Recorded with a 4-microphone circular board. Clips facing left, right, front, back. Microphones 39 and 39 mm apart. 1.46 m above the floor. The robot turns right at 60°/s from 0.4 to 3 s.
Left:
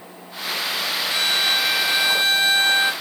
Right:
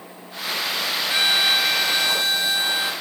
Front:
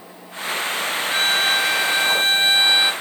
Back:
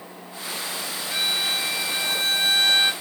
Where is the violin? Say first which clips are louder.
Right 2 dB, front 6 dB; 35° right, 1.4 m; by 2.9 s 75° left, 1.4 m.